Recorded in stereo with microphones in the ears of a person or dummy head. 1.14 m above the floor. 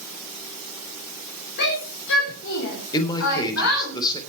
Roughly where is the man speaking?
Left.